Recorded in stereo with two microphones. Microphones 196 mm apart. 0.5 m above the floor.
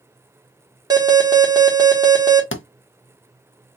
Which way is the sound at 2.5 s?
85° left.